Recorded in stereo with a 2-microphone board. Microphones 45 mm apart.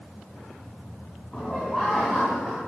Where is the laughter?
10° left (ahead or behind), 3 m.